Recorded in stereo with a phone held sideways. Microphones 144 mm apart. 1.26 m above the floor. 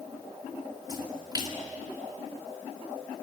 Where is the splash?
30° right (ahead or behind), 1.9 m.